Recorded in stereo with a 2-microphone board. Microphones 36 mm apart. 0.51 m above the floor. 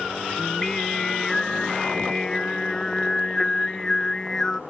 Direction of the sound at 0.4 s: 15° left (ahead or behind).